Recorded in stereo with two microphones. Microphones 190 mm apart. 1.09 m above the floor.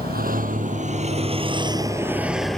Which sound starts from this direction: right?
A vehicle, at 0.0 s.